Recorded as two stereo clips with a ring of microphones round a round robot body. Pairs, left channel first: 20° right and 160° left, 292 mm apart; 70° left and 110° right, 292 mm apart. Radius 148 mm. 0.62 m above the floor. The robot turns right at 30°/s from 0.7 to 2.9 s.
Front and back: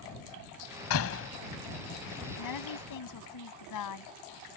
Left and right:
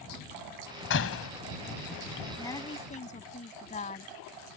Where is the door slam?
15° left; by 1.3 s 30° left.